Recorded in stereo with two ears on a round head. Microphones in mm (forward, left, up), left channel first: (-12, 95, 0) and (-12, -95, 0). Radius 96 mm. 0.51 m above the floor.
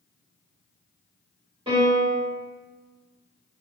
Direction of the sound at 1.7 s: 25° right (ahead or behind).